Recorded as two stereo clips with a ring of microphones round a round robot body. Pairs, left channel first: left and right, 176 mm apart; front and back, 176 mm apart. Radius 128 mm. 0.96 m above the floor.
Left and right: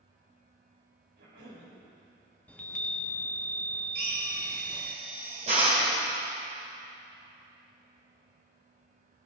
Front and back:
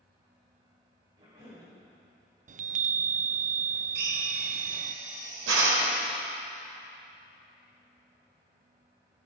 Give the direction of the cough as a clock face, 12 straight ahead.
4 o'clock.